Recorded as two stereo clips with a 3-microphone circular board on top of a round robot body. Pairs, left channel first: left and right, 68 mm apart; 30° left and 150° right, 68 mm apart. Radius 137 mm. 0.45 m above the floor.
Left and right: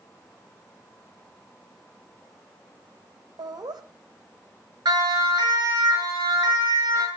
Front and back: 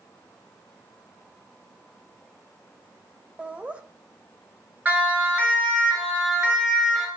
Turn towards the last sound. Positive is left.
turn(degrees=-70)